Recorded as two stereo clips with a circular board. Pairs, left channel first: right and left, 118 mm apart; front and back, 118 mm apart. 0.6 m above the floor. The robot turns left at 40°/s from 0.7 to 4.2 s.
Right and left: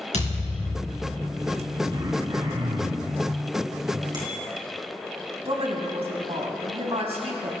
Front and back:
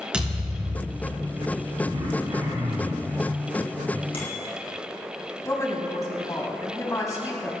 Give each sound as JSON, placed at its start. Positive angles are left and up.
{"t": 0.1, "sound": "a thud", "azimuth_deg": -100, "distance_m": 4.0}
{"t": 1.9, "sound": "throat clearing", "azimuth_deg": 145, "distance_m": 5.0}
{"t": 4.1, "sound": "a bicycle bell", "azimuth_deg": 35, "distance_m": 4.5}
{"t": 5.5, "sound": "a woman speaking", "azimuth_deg": 60, "distance_m": 4.0}